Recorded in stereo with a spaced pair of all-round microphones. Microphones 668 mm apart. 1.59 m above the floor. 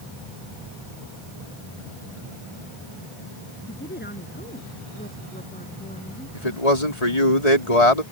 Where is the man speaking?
65° left (ahead or behind).